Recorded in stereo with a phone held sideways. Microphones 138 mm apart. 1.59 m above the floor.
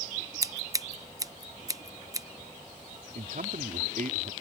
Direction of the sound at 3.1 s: 80° right.